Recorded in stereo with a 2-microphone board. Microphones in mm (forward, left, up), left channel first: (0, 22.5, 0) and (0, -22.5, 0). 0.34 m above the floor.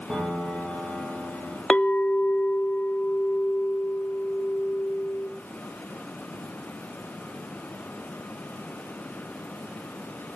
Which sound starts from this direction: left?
A clink, at 1.7 s.